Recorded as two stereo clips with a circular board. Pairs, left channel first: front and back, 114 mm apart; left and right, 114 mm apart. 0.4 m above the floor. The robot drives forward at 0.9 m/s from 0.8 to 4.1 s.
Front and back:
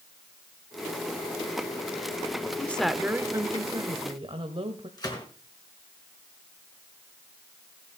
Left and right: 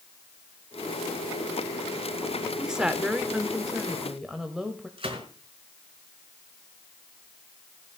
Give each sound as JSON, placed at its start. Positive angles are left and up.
{"t": 2.6, "sound": "a woman speaking", "azimuth_deg": -20, "distance_m": 0.8}
{"t": 5.0, "sound": "a gunshot", "azimuth_deg": -55, "distance_m": 5.0}